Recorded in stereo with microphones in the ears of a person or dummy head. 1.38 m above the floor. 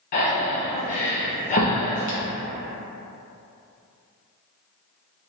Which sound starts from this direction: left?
Breathing, at 0.1 s.